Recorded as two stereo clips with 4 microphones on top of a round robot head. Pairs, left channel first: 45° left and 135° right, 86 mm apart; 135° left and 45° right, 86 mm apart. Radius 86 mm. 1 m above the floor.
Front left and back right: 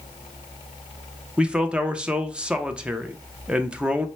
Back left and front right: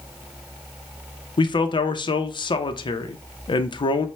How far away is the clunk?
I don't hear a clunk.